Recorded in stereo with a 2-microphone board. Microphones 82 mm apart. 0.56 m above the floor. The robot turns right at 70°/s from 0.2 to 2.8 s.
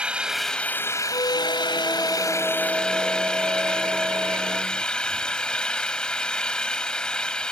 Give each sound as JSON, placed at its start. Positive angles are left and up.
{"t": 0.0, "sound": "an engine running", "azimuth_deg": -15}
{"t": 1.1, "sound": "a squeak", "azimuth_deg": 85}